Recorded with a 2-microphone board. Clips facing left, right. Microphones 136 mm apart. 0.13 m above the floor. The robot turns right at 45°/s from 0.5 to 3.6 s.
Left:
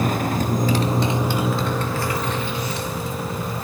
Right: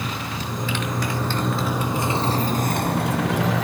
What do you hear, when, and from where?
0.0 s a motorcycle: 45° left (ahead or behind); by 3.6 s 90° right